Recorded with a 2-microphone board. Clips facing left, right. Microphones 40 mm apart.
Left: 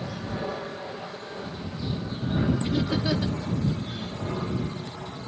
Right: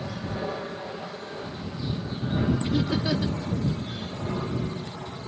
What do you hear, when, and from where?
2.6 s laughter: 5° left (ahead or behind)